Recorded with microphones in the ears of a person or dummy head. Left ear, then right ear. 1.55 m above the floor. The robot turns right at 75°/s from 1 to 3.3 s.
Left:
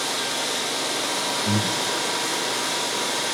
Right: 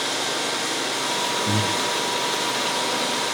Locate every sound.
1.4 s breathing: 30° left (ahead or behind), 0.8 m; by 1.9 s 60° left (ahead or behind), 0.8 m